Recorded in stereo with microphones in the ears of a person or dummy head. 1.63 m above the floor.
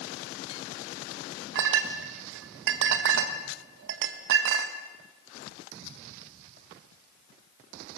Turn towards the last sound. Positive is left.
turn(degrees=-65)  # may be behind; listen again after turning